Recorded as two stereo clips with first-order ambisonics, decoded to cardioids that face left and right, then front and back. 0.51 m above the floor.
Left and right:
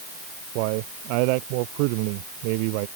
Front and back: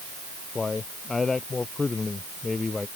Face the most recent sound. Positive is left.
turn(degrees=-80)